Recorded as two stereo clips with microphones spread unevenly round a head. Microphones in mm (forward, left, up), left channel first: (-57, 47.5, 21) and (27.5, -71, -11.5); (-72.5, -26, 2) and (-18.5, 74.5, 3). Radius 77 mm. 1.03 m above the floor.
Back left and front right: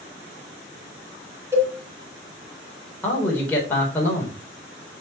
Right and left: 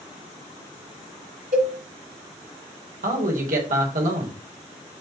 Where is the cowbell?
25° left, 2.5 m.